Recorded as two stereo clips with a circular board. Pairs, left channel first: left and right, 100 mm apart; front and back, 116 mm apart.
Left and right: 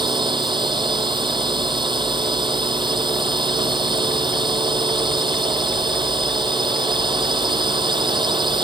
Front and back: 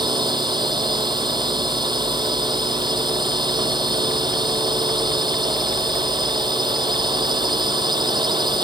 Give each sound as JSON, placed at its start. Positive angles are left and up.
{"t": 0.0, "sound": "a drone", "azimuth_deg": -130}